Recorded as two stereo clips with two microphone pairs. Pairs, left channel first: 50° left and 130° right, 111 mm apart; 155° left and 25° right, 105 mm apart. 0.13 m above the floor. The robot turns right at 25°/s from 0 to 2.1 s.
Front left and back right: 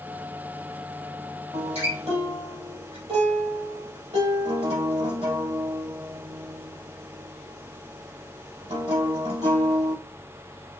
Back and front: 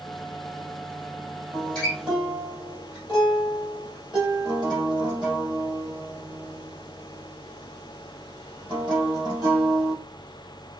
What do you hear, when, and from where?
1.5 s a guitar: 125° right, 4 m; by 9.9 s 110° right, 4 m